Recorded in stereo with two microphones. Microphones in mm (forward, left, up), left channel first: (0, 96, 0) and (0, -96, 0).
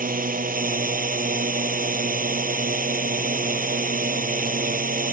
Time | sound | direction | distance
0.0 | a drone | 50° right (ahead or behind) | ?